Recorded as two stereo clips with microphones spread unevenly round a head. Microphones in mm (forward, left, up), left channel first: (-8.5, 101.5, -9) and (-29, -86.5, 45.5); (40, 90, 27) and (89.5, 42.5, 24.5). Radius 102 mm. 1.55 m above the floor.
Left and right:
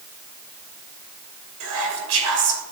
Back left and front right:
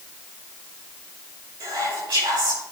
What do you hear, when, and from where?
1.6 s whispering: 80° right, 2 m